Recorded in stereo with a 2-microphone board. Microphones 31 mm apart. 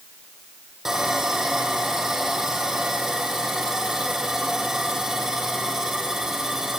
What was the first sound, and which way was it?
Sawing, 15° right (ahead or behind).